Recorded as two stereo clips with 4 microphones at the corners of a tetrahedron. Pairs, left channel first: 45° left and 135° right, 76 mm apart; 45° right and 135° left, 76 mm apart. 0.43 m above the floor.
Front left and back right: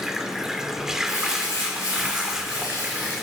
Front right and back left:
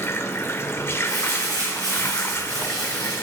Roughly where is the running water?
Ahead right.